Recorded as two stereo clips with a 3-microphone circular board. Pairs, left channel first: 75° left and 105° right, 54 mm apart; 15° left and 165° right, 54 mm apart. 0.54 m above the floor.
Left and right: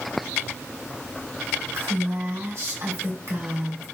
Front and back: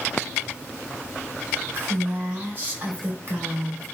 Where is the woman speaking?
115° right, 2 m.